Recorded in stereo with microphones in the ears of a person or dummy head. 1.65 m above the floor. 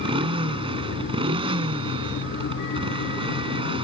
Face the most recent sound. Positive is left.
turn(degrees=-30)  # may be behind; listen again after turning